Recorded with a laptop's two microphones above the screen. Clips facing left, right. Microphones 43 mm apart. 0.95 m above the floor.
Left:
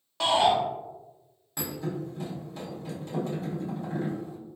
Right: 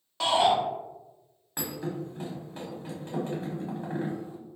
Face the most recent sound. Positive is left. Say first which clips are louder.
# left 1 dB
turn(degrees=-40)  # may be behind; listen again after turning